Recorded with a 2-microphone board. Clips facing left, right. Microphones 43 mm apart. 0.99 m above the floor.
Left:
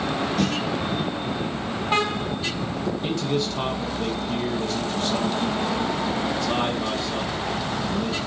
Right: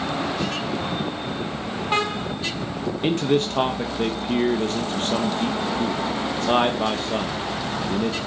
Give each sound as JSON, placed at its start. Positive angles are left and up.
{"t": 0.4, "sound": "a snare drum", "side_deg": 60, "distance_m": 2.0}
{"t": 3.0, "sound": "a man speaking", "side_deg": -45, "distance_m": 1.2}